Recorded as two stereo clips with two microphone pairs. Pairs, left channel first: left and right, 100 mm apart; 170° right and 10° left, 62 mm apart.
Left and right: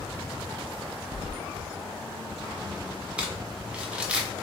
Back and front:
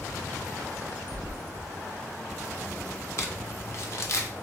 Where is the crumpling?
170° right, 0.8 m.